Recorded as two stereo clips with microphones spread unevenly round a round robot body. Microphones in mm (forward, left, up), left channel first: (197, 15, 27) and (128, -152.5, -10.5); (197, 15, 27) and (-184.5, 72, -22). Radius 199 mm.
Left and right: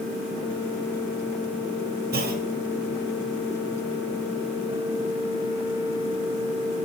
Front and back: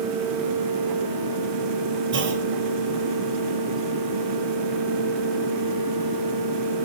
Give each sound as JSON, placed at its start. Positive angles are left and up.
{"t": 2.1, "sound": "a clunk", "azimuth_deg": -130, "distance_m": 1.8}